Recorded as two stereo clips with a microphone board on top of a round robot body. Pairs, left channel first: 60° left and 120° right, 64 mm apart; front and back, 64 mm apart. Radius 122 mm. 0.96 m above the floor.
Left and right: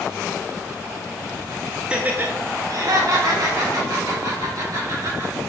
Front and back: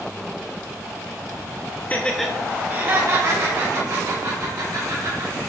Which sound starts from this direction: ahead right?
Laughter, at 1.9 s.